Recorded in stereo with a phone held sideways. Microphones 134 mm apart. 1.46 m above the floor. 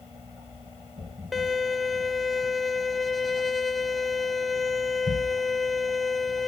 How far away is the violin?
About 1.1 m.